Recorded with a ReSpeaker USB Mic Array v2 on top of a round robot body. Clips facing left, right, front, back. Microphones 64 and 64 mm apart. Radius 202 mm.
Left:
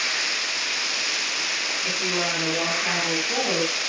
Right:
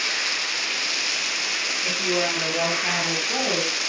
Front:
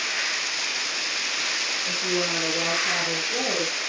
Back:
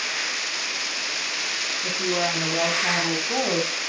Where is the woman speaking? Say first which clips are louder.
Right 3 dB, back 3 dB; 170° right, 9.5 m; by 3.8 s straight behind, 7.5 m.